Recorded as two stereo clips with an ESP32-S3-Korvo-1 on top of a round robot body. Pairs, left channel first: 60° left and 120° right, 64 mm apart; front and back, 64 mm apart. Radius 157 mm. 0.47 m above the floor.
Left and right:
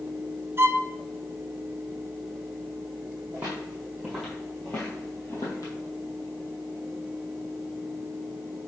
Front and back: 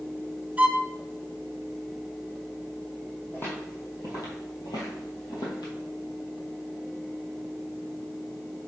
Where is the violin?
125° right, 0.8 m.